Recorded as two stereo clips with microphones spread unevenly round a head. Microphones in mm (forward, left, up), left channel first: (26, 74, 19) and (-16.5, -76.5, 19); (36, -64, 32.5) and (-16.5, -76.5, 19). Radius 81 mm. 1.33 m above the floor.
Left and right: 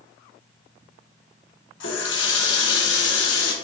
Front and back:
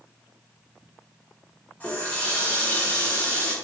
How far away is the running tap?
About 1.8 m.